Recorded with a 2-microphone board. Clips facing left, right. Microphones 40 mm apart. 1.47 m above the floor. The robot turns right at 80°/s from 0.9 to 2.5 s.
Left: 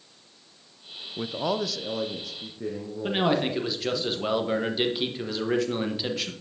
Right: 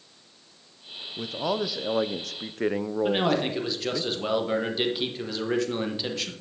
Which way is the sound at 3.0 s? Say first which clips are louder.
Left 1 dB; 5° left (ahead or behind).